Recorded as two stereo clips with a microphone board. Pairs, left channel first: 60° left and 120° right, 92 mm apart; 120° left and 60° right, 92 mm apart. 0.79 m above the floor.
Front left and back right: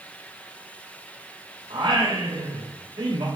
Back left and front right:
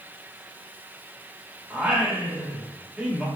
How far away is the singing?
About 3 m.